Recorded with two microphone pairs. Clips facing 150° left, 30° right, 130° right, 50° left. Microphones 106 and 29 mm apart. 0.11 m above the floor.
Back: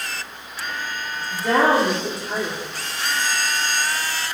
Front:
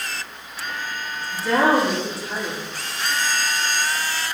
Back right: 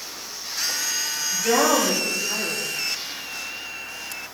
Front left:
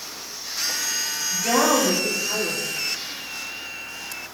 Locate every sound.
1.3 s a woman speaking: 120° left, 3.5 m